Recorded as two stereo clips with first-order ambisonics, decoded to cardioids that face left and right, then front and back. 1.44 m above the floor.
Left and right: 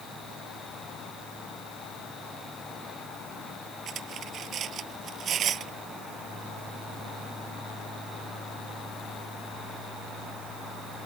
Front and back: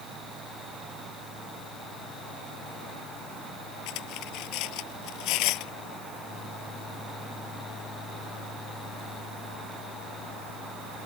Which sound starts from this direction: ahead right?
Cutlery clinking, at 3.9 s.